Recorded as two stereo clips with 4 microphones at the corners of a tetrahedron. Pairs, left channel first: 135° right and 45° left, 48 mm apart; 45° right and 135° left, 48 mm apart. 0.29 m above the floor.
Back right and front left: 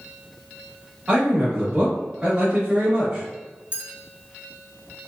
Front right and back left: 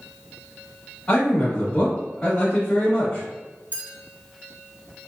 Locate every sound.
1.1 s a man speaking: straight ahead, 1.0 m
3.7 s a clink: 10° right, 1.3 m